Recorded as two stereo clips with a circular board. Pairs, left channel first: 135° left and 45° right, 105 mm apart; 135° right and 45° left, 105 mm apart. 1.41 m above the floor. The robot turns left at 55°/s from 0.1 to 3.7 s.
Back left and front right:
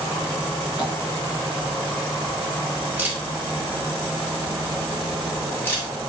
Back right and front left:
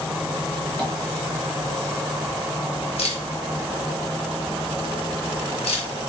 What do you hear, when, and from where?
0.8 s tapping: 150° left, 0.7 m; by 0.9 s 145° left, 0.7 m
3.0 s a camera shutter: 115° right, 0.7 m; by 5.9 s 155° right, 0.7 m